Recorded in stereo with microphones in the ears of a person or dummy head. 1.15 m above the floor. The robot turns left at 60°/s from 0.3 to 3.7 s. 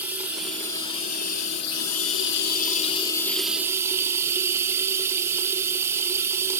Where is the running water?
170° right, 1.5 m; by 6.6 s 15° right, 1.5 m.